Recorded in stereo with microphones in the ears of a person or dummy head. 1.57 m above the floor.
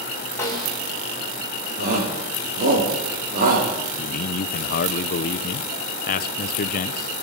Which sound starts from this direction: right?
A shout, at 1.8 s.